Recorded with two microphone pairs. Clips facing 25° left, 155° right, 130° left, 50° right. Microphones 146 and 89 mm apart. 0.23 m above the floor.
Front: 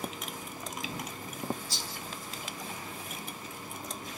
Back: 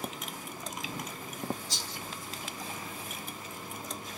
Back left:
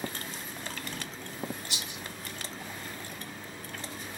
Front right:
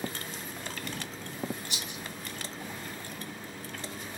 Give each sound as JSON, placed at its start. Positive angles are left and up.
{"t": 1.7, "sound": "a rattle", "azimuth_deg": 135, "distance_m": 2.5}